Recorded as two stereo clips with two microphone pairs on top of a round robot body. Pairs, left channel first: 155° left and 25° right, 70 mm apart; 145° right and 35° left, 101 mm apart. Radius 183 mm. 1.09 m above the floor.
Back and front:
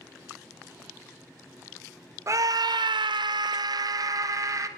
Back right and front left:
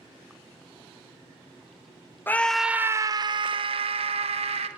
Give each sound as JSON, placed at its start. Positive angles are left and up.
{"t": 2.3, "sound": "a scream", "azimuth_deg": -75, "distance_m": 0.6}